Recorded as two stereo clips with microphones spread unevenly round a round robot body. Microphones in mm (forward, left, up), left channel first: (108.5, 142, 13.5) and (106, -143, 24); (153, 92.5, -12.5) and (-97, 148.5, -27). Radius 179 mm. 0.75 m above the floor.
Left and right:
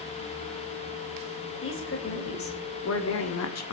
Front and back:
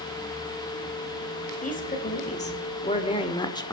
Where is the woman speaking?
45° left, 4 m; by 3.7 s 65° left, 1.8 m.